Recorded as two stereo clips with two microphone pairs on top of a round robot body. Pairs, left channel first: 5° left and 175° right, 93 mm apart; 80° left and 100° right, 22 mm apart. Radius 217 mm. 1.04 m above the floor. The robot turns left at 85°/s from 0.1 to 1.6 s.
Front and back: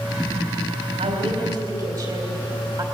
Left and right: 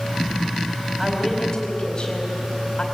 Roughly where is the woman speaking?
Behind.